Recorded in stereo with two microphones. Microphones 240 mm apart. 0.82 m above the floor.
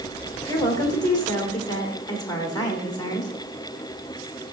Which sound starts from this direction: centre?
A woman speaking, at 0.5 s.